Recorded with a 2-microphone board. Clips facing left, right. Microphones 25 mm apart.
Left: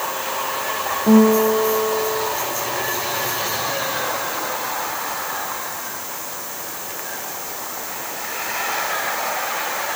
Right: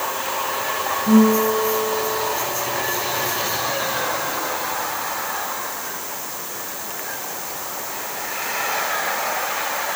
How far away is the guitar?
About 5 m.